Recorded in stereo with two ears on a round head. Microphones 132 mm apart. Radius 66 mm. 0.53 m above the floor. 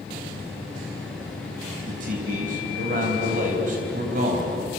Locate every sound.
1.9 s a man speaking: 60° right (ahead or behind), 4 m